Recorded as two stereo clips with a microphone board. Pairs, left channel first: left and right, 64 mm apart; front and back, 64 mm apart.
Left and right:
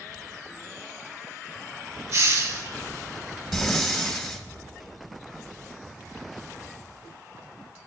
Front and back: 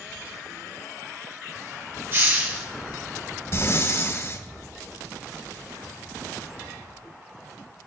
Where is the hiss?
130° right, 5.5 m.